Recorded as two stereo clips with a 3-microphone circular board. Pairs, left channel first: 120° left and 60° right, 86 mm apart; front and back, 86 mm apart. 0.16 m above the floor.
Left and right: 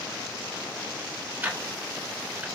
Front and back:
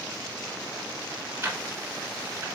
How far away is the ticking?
About 0.8 m.